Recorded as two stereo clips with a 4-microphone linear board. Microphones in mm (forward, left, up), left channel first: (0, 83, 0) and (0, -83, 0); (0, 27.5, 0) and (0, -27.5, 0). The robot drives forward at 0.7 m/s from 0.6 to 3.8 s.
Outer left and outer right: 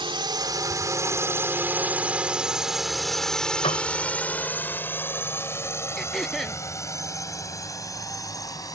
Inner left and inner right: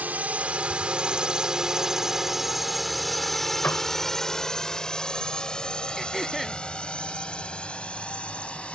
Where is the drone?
30° right (ahead or behind); by 8.8 s 20° left (ahead or behind).